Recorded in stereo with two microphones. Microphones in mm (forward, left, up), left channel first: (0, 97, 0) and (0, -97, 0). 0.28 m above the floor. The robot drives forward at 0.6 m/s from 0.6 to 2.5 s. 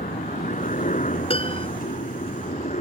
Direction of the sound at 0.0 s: 40° left (ahead or behind).